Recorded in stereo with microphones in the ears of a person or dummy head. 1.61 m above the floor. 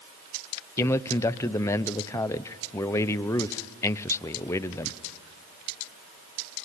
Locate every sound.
0.8 s a man speaking: 15° left (ahead or behind), 0.7 m